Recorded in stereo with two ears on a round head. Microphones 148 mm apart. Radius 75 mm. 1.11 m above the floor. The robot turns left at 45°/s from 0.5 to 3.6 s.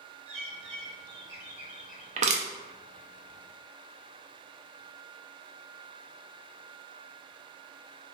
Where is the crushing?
45° right (ahead or behind), 0.5 m; by 2.5 s 40° right (ahead or behind), 0.5 m.